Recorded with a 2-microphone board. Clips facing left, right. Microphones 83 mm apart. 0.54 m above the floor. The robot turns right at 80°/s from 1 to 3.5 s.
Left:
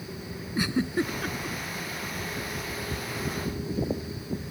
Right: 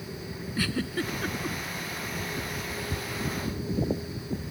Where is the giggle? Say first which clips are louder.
Left 4 dB; 20° left (ahead or behind); by 1.6 s 25° right (ahead or behind).